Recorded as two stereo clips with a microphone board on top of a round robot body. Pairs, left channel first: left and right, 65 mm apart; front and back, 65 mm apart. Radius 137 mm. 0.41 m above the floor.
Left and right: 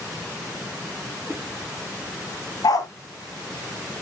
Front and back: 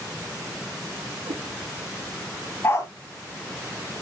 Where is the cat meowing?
170° left, 1.8 m.